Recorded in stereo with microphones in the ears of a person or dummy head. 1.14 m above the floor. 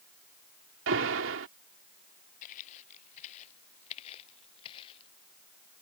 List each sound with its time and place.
0.9 s an alarm: 70° right (ahead or behind)
2.4 s footsteps: 40° left (ahead or behind); by 5.1 s 25° left (ahead or behind)